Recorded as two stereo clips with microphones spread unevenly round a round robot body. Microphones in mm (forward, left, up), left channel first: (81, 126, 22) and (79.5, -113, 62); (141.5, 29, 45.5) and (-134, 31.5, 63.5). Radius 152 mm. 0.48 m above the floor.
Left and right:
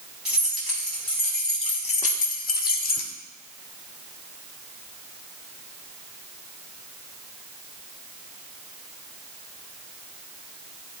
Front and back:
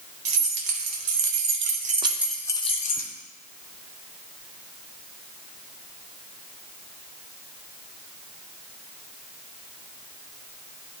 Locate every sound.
0.2 s keys jangling: straight behind, 1.7 m; by 3.1 s 50° left, 1.2 m